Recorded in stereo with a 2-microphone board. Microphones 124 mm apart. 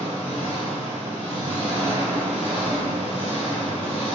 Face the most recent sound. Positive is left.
turn(degrees=65)  # may be behind; listen again after turning